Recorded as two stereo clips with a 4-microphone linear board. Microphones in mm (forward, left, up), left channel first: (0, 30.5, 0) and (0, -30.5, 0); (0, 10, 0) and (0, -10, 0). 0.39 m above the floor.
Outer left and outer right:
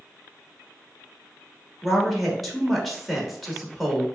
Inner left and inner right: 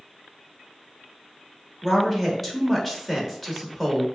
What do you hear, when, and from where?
1.8 s a woman speaking: centre (ahead or behind), 1.3 m